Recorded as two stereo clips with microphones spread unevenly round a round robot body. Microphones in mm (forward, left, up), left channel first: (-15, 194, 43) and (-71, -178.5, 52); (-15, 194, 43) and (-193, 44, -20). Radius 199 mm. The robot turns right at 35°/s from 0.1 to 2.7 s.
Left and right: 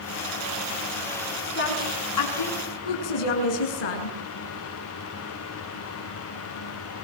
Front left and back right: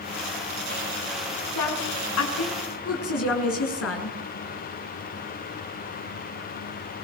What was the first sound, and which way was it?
A woman speaking, 15° left.